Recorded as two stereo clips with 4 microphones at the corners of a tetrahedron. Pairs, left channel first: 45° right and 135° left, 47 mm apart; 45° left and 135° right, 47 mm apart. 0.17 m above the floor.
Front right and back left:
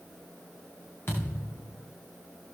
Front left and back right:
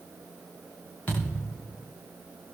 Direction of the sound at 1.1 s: 10° right.